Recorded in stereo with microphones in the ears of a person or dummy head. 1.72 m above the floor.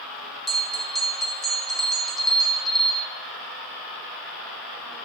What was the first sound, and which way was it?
A bell, centre (ahead or behind).